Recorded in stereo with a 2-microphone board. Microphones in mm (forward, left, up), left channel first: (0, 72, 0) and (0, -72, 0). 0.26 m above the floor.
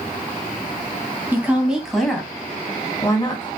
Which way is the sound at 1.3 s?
15° right (ahead or behind).